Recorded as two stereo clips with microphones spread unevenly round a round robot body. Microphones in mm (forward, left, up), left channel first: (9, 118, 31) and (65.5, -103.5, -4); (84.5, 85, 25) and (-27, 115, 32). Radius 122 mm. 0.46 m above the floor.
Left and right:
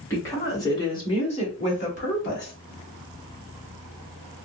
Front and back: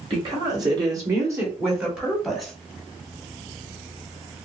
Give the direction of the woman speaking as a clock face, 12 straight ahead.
6 o'clock.